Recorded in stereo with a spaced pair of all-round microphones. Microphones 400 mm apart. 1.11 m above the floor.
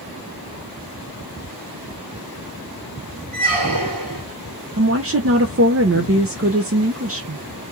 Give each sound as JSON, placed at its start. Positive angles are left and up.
{"t": 3.3, "sound": "a squeak", "side_deg": -55, "distance_m": 1.7}
{"t": 4.8, "sound": "a woman speaking", "side_deg": -35, "distance_m": 0.5}